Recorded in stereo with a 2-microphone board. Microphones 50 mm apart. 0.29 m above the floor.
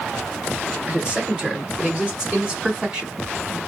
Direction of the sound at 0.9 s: 20° right (ahead or behind).